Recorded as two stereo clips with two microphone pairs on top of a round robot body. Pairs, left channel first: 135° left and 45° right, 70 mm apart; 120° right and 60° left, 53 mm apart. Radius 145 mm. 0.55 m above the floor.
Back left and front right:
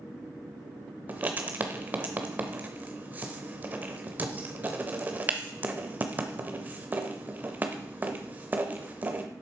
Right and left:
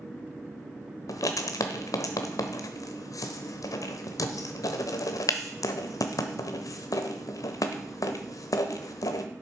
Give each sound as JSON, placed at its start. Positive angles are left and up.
{"t": 1.1, "sound": "writing", "azimuth_deg": -110, "distance_m": 0.8}